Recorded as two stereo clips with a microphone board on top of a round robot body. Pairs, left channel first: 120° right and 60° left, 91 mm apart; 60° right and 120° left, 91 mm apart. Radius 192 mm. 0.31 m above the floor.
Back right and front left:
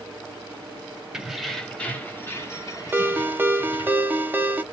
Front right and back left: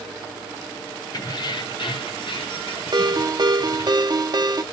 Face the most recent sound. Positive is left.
turn(degrees=125)